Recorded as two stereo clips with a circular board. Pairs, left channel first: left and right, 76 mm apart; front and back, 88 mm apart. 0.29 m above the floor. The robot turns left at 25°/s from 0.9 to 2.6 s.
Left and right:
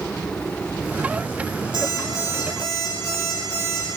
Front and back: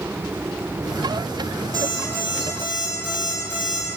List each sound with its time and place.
1.7 s an alarm clock: 125° left, 4 m; by 3.9 s 105° left, 4 m